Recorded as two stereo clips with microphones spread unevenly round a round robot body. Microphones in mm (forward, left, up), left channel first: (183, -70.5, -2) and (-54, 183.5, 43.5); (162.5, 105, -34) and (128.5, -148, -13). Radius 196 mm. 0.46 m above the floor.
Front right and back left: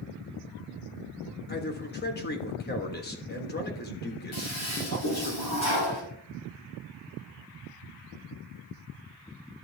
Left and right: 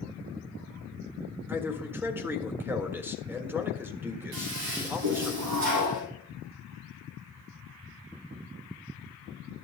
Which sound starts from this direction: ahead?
A man speaking, at 1.5 s.